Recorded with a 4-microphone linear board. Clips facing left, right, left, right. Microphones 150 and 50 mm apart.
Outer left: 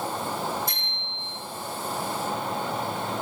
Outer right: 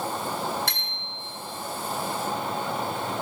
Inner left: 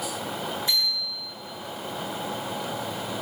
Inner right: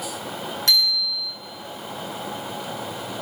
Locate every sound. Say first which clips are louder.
0.7 s a bicycle bell: even, inner right 5 dB; 80° right, 7.5 m